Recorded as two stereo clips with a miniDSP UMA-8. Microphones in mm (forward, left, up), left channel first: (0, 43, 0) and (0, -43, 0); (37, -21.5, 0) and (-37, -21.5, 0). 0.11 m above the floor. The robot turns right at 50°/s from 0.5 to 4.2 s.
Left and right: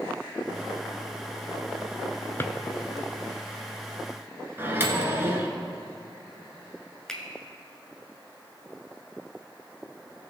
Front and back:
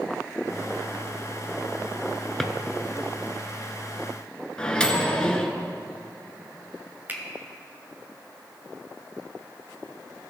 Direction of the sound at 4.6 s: 65° right.